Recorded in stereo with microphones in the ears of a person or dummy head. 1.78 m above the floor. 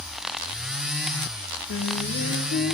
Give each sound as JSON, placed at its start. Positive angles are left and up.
{"t": 1.7, "sound": "singing", "side_deg": 60, "distance_m": 1.2}